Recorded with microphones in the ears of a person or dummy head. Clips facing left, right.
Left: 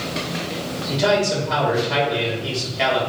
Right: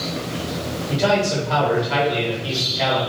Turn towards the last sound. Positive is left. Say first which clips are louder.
# even
turn(degrees=0)  # may be behind; listen again after turning